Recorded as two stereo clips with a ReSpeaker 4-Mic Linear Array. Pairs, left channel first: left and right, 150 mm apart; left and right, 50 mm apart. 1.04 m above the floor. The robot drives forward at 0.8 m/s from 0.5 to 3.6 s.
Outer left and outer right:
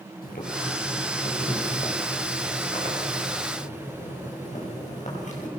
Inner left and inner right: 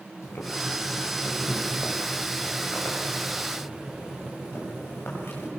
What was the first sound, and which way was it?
Boiling, 75° left (ahead or behind).